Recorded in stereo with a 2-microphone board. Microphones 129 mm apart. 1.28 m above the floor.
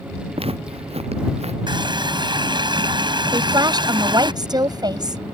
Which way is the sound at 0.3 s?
50° right (ahead or behind).